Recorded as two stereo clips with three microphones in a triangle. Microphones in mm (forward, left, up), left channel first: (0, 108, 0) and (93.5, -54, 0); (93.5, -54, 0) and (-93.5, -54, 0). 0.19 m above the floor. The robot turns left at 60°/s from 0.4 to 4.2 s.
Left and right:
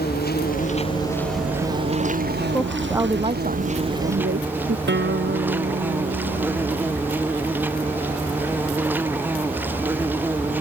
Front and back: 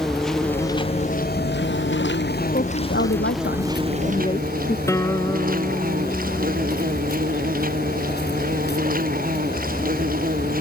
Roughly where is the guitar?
Right.